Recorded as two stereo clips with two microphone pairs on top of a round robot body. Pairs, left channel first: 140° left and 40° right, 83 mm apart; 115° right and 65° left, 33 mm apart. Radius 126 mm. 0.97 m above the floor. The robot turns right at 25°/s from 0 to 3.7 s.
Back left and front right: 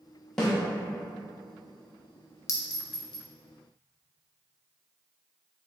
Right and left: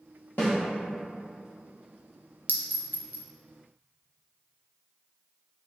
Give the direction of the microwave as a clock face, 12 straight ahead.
No microwave in this recording.